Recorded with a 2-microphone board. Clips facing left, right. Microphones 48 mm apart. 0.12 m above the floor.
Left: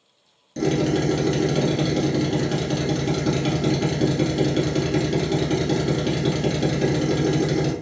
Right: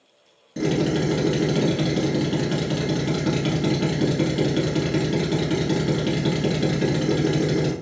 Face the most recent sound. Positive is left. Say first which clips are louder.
# left 1 dB
turn(degrees=-10)  # may be behind; listen again after turning